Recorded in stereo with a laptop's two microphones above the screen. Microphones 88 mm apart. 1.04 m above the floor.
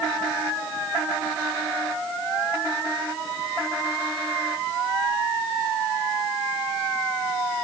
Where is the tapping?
No tapping in this recording.